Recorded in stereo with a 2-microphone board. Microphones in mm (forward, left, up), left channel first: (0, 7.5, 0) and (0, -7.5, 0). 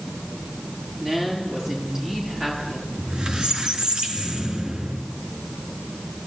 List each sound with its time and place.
1.0 s a woman speaking: 45° right (ahead or behind), 9 m
3.0 s a squeak: 70° right (ahead or behind), 2.5 m